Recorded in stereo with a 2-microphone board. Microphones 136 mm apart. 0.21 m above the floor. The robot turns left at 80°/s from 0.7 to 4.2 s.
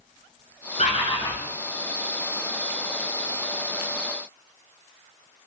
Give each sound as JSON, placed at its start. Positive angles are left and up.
{"t": 0.8, "sound": "a bird", "azimuth_deg": 70, "distance_m": 0.6}